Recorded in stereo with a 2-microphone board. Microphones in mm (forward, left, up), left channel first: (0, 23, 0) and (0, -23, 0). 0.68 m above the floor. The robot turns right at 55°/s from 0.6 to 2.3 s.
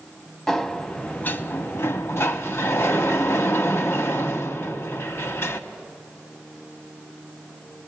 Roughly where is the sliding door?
Ahead.